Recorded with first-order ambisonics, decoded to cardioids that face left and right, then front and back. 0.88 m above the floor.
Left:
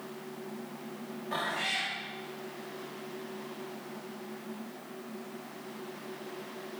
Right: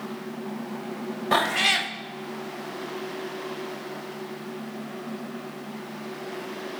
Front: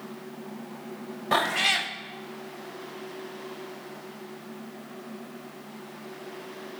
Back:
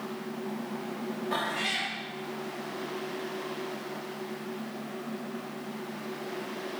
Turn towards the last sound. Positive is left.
turn(degrees=-55)